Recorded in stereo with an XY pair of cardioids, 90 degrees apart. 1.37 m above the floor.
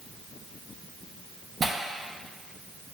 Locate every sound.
1.6 s tearing paper: 45° right, 0.7 m